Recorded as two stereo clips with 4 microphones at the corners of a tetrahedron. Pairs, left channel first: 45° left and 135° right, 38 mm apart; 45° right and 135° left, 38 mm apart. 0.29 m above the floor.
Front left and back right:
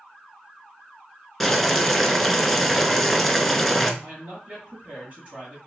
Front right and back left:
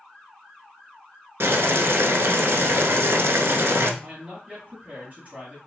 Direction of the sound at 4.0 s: Straight behind.